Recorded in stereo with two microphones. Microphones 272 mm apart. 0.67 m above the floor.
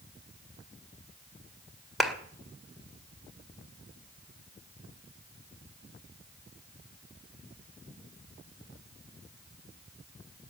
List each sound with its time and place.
2.0 s a clap: centre (ahead or behind), 2.0 m